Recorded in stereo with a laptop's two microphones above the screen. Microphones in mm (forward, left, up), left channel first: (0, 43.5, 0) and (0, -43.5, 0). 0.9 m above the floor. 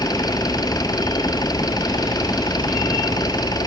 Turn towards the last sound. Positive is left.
turn(degrees=50)  # may be behind; listen again after turning